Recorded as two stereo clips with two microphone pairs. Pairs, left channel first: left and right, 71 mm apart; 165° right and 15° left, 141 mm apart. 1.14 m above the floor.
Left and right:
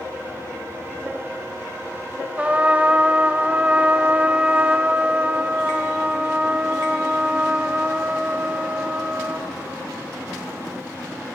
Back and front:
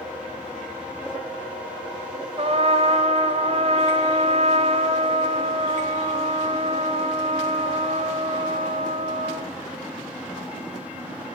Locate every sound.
2.4 s a trumpet: 20° right, 1.9 m